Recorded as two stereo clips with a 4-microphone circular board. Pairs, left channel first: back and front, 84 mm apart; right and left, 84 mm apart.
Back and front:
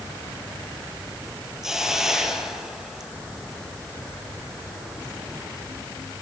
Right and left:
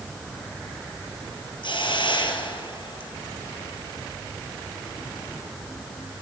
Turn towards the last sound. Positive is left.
turn(degrees=-85)